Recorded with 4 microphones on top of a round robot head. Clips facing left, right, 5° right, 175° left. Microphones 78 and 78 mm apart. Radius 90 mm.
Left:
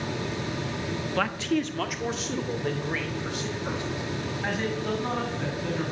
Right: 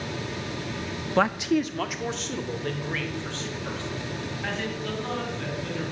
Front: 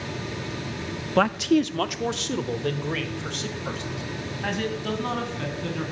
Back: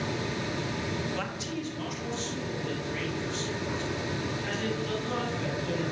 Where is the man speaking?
25° right, 1.1 m; by 5.8 s 20° left, 8 m.